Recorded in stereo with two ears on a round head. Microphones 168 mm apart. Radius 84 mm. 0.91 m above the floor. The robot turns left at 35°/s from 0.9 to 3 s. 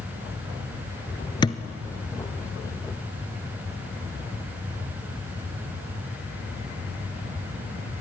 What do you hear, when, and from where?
1.4 s a thud: 25° left (ahead or behind), 1.1 m